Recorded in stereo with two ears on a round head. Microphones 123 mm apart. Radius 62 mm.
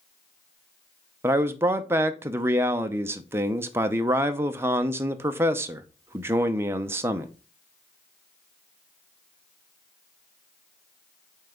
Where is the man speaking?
15° right (ahead or behind), 0.6 m.